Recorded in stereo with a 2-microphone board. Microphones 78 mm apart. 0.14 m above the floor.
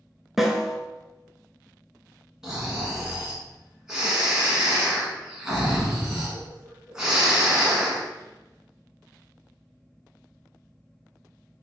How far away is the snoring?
About 1.3 m.